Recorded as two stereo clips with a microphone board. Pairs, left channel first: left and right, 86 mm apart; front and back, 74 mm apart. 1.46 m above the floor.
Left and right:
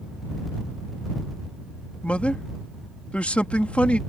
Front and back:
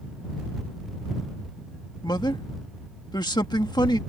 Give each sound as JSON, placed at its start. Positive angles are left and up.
{"t": 2.0, "sound": "a man speaking", "azimuth_deg": 15}